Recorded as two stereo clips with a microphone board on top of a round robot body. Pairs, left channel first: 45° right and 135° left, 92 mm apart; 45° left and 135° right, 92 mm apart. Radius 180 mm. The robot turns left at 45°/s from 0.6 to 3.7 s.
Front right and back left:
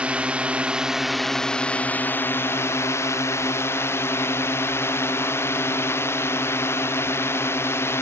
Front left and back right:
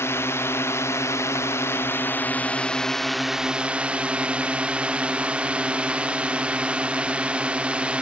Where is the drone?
70° left; by 8.0 s 70° right.